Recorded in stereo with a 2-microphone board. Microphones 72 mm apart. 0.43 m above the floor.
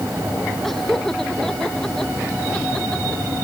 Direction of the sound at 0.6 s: 5° left (ahead or behind).